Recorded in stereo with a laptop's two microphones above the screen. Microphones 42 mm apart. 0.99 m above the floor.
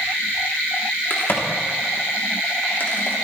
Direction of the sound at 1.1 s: 50° left (ahead or behind).